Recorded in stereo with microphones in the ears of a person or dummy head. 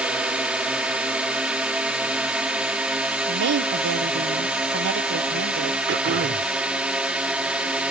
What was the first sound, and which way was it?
A drone, 5° right (ahead or behind).